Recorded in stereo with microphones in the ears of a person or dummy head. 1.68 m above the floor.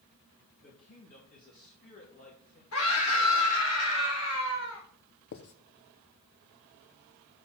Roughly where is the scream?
Left.